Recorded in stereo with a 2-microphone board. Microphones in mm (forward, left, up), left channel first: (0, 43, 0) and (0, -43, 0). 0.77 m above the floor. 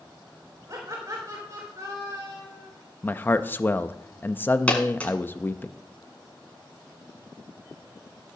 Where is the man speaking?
25° left (ahead or behind), 0.5 m.